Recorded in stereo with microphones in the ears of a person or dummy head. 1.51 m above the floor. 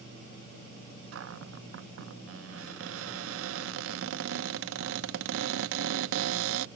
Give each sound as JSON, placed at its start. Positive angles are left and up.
{"t": 1.1, "sound": "a cupboard door", "side_deg": -85}